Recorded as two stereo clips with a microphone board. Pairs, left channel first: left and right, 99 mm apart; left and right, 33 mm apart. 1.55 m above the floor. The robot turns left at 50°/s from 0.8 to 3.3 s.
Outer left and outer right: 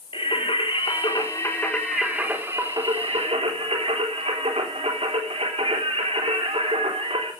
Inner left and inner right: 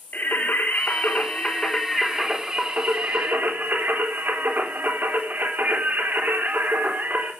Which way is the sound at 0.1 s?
60° left.